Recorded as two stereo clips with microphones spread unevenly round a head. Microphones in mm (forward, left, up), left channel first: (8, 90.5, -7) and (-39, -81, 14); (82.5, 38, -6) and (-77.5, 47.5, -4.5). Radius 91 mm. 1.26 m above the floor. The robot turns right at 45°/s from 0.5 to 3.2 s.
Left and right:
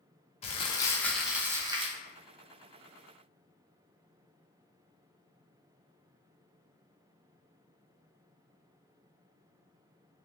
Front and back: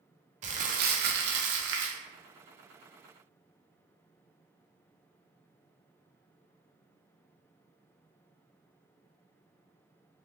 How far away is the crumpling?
About 0.5 m.